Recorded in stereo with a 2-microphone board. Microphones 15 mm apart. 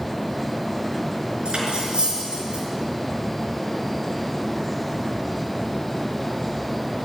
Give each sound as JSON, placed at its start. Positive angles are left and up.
{"t": 1.4, "sound": "cutlery clinking", "side_deg": -80, "distance_m": 4.5}